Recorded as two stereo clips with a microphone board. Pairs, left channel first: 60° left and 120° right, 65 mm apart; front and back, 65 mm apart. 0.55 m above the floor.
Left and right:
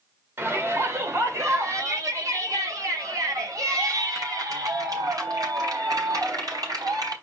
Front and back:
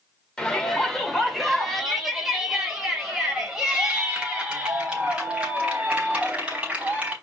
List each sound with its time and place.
0.4 s a shout: 75° right, 2 m; by 7.1 s 110° right, 5 m